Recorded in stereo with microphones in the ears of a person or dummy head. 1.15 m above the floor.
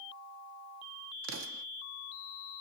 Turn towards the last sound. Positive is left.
turn(degrees=-75)  # may be behind; listen again after turning